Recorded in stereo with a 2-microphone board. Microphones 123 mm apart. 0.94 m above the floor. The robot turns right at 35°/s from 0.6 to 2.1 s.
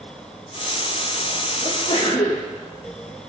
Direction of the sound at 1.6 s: 40° left (ahead or behind).